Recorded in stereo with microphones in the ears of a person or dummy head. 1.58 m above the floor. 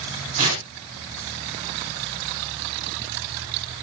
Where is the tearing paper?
35° right (ahead or behind), 7 m.